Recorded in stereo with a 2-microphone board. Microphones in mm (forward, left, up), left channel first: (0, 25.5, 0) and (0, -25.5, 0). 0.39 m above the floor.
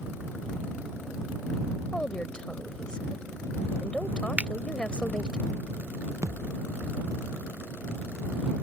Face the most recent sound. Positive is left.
turn(degrees=-75)  # may be behind; listen again after turning